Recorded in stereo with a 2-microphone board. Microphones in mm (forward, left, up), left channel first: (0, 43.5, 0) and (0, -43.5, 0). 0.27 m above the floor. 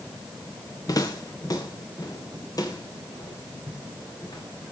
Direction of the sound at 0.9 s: 45° left (ahead or behind).